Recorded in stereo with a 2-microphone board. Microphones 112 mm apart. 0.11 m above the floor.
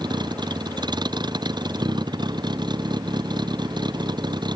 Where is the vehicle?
40° right (ahead or behind).